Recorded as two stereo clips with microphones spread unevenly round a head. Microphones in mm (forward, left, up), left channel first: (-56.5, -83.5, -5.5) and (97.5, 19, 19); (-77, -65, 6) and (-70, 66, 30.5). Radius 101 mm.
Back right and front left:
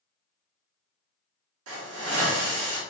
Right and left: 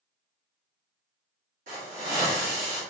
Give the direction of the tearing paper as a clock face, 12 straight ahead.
I don't hear tearing paper.